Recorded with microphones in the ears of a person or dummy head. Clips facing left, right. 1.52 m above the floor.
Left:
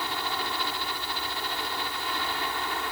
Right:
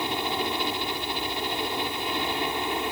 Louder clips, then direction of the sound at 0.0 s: Right 5 dB; 15° right (ahead or behind).